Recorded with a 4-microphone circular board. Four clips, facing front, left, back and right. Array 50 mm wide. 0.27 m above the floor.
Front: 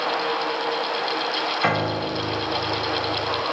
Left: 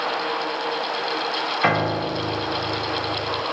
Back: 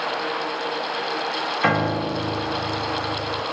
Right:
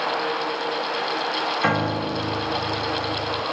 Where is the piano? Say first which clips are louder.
Left 3 dB, back 4 dB; 95° left, 0.7 m.